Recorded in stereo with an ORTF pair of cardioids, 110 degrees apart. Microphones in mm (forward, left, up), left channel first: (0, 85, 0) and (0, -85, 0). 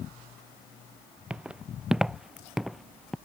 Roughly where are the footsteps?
Ahead.